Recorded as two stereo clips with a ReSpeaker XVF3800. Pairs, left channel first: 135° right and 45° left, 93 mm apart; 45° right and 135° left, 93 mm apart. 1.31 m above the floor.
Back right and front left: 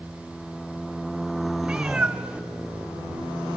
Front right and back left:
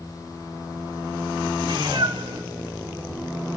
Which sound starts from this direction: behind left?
A cat meowing, at 1.6 s.